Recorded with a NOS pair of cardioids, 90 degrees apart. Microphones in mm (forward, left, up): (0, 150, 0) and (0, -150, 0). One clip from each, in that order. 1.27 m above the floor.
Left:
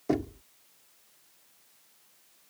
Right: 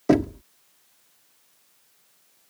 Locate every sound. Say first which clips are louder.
0.1 s knocking: right 9 dB; 60° right